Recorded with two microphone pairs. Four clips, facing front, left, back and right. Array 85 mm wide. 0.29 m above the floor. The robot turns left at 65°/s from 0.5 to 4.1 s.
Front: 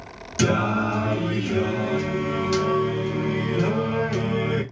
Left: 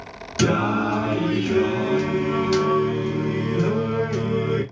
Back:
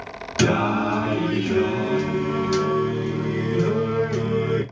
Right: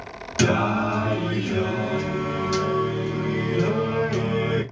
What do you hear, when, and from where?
0.4 s singing: 165° right, 1.2 m; by 4.6 s 40° right, 1.2 m